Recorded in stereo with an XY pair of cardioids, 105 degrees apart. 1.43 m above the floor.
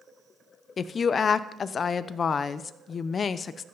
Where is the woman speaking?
45° left, 0.5 m.